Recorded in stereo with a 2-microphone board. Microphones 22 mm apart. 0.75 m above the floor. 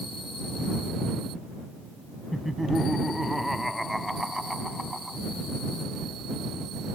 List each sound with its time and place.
2.3 s laughter: 5° right (ahead or behind)